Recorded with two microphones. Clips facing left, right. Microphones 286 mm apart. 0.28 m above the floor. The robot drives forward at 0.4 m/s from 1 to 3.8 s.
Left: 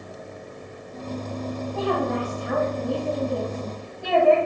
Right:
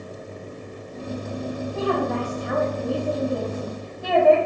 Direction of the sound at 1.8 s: 5° right (ahead or behind).